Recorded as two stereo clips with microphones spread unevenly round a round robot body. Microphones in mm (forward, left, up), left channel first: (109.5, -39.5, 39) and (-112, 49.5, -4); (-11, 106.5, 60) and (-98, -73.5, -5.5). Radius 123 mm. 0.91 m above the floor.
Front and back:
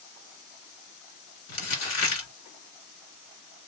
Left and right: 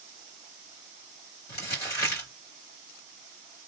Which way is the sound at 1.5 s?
10° left.